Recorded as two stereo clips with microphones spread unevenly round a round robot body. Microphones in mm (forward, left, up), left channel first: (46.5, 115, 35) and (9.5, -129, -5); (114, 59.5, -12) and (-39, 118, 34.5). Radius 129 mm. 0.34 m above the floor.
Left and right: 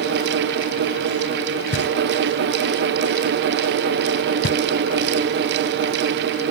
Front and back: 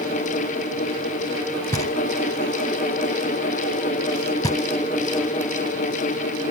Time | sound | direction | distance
1.7 | knocking | 35° left | ?